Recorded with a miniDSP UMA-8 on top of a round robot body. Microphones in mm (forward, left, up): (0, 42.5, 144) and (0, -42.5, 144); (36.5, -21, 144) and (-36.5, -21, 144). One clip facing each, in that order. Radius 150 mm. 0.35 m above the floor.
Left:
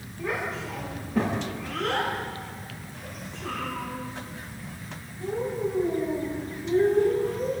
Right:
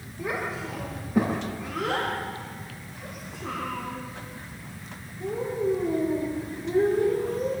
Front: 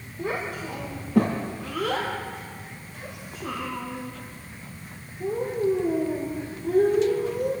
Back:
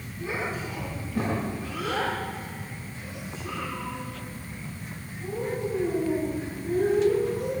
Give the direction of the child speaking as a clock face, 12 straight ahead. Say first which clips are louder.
Even, front 2 dB; 1 o'clock.